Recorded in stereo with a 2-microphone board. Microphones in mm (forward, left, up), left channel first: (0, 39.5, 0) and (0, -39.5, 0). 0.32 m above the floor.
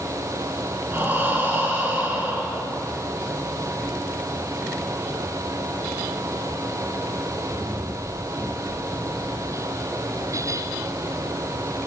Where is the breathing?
25° right (ahead or behind), 1.7 m.